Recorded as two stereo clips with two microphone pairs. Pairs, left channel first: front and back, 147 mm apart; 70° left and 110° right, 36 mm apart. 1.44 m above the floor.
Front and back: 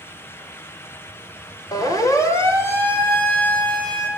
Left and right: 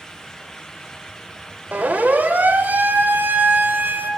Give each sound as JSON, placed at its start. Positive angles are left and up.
{"t": 1.7, "sound": "a siren", "azimuth_deg": -65, "distance_m": 4.0}